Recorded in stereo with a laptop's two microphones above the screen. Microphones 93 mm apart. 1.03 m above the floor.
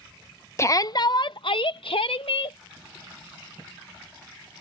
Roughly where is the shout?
Left.